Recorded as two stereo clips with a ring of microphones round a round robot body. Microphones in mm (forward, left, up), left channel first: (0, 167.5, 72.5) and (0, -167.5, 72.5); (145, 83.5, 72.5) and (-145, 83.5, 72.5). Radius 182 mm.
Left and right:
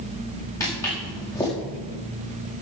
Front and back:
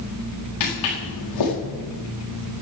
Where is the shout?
I don't hear a shout.